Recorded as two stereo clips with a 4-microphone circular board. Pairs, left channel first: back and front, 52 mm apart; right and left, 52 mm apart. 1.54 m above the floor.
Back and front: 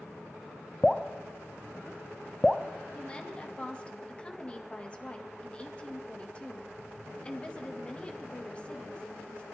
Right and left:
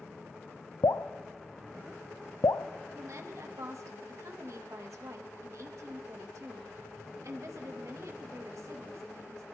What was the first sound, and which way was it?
Dripping, 90° right.